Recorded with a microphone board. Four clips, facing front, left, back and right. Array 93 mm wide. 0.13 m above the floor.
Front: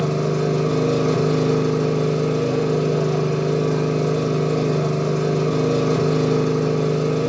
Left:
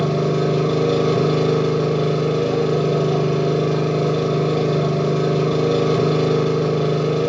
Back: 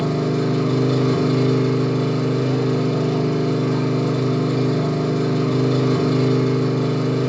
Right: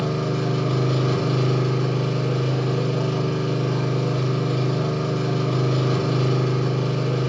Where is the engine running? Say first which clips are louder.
Left 5 dB, even; 70° left, 1.2 m.